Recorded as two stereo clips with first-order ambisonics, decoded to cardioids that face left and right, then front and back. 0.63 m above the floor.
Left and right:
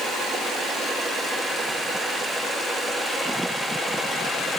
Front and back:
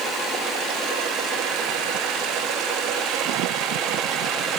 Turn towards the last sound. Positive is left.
No sound to turn to.